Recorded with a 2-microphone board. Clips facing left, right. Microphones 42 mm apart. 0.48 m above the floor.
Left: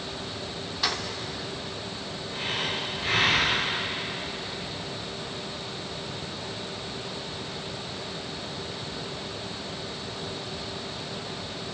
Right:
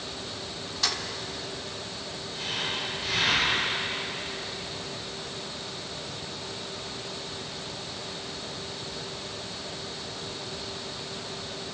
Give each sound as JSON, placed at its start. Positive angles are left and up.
{"t": 0.8, "sound": "keys jangling", "side_deg": 15, "distance_m": 0.8}
{"t": 2.3, "sound": "breathing", "side_deg": 35, "distance_m": 6.0}